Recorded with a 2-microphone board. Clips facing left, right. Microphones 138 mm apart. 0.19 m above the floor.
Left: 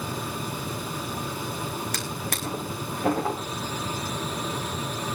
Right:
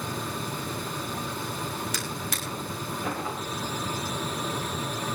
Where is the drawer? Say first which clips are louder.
Left 2 dB; 50° left (ahead or behind), 4 m.